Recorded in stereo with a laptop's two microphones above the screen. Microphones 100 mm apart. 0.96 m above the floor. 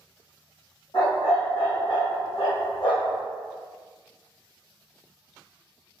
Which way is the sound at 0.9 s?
70° left (ahead or behind).